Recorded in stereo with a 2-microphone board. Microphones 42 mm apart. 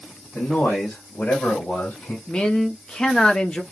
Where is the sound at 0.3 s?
60° left (ahead or behind), 3 m; by 2.2 s 30° left (ahead or behind), 3 m.